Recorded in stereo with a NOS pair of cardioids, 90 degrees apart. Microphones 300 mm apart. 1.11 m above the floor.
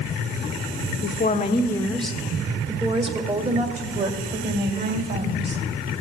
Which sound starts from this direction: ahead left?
A woman speaking, at 1.0 s.